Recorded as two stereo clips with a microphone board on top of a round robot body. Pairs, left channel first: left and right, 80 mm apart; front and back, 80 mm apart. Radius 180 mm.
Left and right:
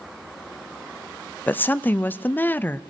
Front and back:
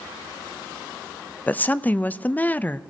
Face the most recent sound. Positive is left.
turn(degrees=50)